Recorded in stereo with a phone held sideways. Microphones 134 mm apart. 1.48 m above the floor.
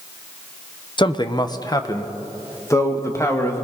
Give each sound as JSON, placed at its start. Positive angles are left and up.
{"t": 1.0, "sound": "a man speaking", "side_deg": 35, "distance_m": 1.0}